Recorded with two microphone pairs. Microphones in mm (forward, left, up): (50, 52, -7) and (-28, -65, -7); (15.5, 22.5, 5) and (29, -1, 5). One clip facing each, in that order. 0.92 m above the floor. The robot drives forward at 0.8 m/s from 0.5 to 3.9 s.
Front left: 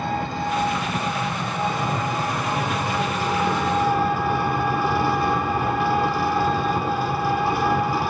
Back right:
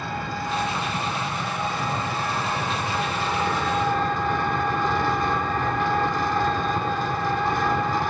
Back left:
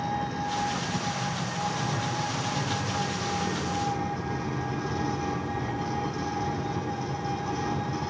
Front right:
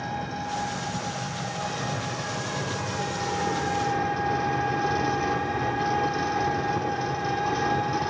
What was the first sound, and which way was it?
An engine running, 10° right.